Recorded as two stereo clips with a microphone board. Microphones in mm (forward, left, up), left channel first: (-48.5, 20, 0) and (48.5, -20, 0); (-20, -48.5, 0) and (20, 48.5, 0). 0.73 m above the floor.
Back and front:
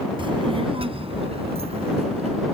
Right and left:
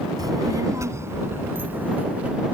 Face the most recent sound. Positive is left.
turn(degrees=-10)